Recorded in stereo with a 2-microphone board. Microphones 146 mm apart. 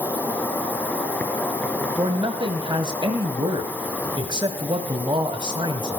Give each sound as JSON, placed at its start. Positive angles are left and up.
{"t": 0.0, "sound": "an insect", "side_deg": 10, "distance_m": 2.5}
{"t": 2.0, "sound": "a man speaking", "side_deg": -35, "distance_m": 1.5}